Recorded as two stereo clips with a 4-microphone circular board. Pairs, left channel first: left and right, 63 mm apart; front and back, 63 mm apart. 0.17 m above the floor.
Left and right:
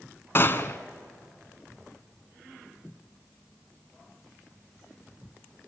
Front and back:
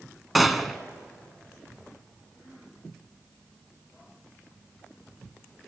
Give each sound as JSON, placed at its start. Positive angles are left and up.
{"t": 0.3, "sound": "a gunshot", "azimuth_deg": 90, "distance_m": 1.1}